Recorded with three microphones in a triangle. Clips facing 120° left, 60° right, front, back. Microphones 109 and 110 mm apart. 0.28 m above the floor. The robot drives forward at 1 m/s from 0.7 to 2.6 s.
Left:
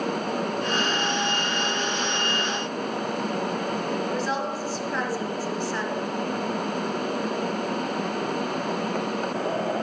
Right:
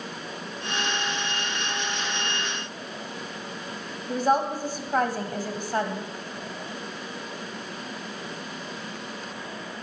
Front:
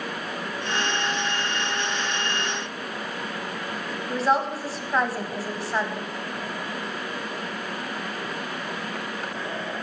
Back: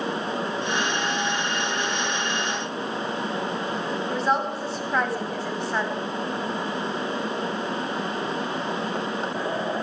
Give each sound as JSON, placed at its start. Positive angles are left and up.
{"t": 4.1, "sound": "a woman speaking", "azimuth_deg": -85, "distance_m": 1.5}